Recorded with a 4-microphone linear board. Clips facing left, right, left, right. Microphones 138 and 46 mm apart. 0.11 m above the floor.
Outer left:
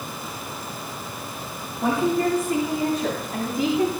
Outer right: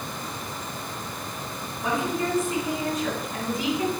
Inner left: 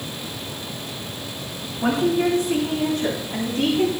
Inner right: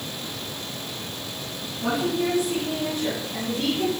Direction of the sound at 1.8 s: 60° left (ahead or behind).